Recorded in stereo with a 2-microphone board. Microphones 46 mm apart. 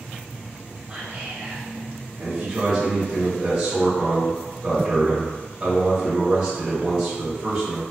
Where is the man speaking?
20° right (ahead or behind), 1.3 m.